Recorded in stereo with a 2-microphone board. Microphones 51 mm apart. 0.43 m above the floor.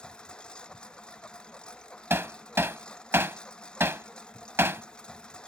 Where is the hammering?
55° right (ahead or behind).